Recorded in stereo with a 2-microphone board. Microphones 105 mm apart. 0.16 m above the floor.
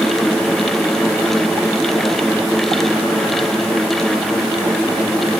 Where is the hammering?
I don't hear hammering.